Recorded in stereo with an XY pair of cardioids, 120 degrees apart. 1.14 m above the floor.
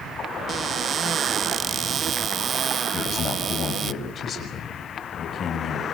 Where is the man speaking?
45° left, 6.5 m.